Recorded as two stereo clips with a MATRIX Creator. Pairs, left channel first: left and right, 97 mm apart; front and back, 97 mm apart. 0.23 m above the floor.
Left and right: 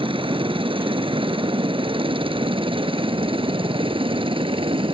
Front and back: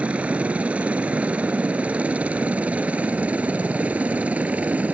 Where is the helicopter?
105° right.